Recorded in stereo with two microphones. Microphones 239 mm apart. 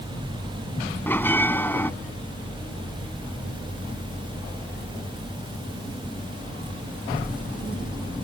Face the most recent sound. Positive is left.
turn(degrees=10)  # may be behind; listen again after turning